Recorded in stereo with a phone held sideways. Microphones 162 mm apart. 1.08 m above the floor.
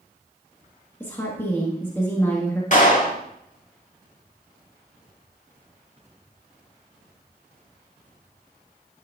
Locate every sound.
1.0 s a woman speaking: 15° left (ahead or behind), 1.4 m
2.7 s a clap: 50° left (ahead or behind), 1.8 m